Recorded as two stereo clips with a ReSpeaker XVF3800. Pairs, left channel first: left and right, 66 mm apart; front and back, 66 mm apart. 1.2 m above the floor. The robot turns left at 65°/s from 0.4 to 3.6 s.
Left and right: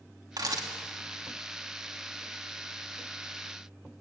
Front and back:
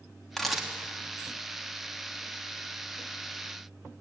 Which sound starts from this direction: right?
A camera shutter, at 0.4 s.